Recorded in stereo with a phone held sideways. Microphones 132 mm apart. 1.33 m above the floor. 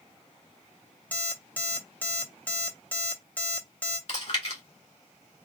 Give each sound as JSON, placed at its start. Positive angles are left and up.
{"t": 1.1, "sound": "an alarm clock", "side_deg": 15, "distance_m": 0.7}
{"t": 4.1, "sound": "chewing", "side_deg": 55, "distance_m": 1.8}